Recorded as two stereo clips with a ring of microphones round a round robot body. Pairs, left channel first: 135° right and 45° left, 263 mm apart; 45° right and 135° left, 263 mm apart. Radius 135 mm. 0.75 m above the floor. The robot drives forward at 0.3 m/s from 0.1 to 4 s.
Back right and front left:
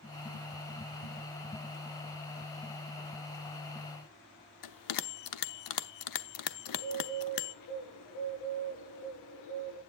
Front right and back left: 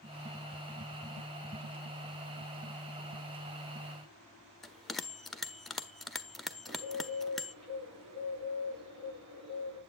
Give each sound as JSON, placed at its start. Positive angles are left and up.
{"t": 4.6, "sound": "a bell", "azimuth_deg": -135, "distance_m": 0.7}
{"t": 6.7, "sound": "a bird", "azimuth_deg": -135, "distance_m": 7.0}